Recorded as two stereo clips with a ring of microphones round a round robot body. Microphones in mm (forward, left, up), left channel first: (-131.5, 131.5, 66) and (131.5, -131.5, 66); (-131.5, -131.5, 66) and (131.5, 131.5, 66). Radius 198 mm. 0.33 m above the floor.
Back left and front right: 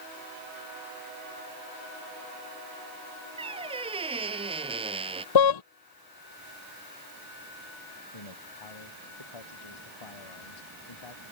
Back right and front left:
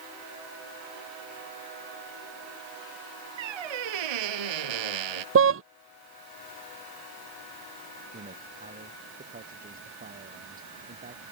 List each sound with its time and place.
3.4 s a squeak: 30° left
5.3 s a car horn: 105° left
8.1 s a man speaking: 115° left